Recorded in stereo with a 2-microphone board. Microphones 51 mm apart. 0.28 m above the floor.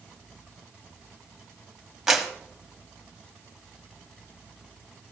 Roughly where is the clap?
Centre.